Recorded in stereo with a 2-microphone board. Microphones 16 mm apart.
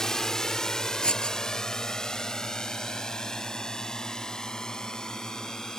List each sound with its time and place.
0.0 s a drone: 35° left (ahead or behind); by 5.8 s 45° left (ahead or behind)
1.0 s writing: 65° left (ahead or behind)